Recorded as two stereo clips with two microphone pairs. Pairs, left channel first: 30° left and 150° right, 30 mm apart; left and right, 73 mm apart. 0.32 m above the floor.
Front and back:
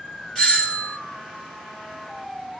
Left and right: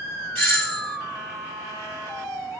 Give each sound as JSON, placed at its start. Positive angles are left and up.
{"t": 0.3, "sound": "a doorbell", "azimuth_deg": 20, "distance_m": 2.0}